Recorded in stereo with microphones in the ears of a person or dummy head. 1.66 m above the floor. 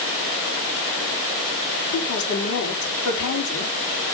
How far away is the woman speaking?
About 4.5 m.